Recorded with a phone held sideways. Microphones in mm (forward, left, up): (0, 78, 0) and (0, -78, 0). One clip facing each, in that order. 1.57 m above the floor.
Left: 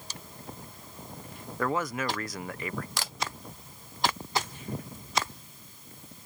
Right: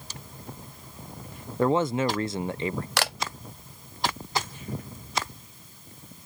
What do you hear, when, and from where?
1.6 s a man speaking: 25° right (ahead or behind)
3.0 s a camera shutter: 70° right (ahead or behind)